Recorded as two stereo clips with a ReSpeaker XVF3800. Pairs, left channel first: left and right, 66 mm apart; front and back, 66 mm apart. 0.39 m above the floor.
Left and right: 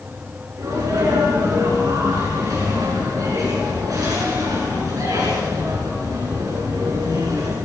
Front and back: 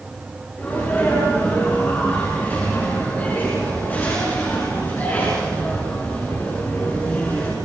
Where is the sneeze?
65° right, 6 m.